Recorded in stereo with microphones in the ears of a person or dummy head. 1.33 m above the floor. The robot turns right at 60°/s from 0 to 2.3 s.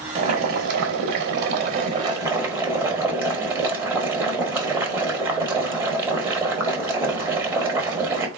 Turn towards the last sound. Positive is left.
turn(degrees=-15)